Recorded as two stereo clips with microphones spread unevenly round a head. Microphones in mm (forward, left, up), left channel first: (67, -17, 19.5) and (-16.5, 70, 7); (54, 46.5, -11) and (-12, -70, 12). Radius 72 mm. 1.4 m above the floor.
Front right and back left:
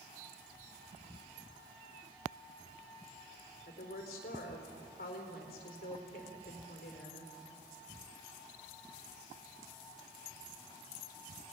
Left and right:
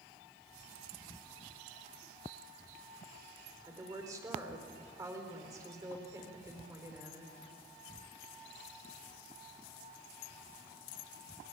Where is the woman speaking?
55° right, 4 m.